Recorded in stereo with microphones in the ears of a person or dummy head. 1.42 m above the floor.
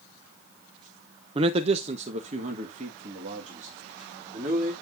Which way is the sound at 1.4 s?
35° right (ahead or behind).